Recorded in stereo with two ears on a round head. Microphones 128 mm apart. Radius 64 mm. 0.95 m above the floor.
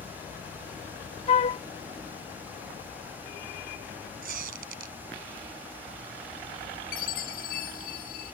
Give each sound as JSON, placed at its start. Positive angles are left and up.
{"t": 1.3, "sound": "a flute", "side_deg": 40}
{"t": 4.2, "sound": "a squeak", "side_deg": -70}
{"t": 6.9, "sound": "a chime", "side_deg": 70}